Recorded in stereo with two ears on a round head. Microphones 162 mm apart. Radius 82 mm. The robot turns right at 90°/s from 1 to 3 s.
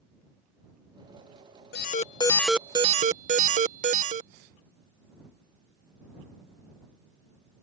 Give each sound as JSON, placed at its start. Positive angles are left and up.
{"t": 1.7, "sound": "an alarm", "azimuth_deg": 110}